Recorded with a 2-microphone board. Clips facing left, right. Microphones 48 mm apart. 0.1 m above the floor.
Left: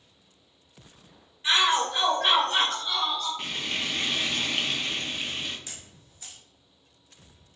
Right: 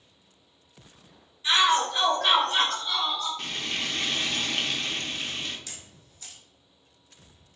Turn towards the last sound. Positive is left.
turn(degrees=20)  # may be behind; listen again after turning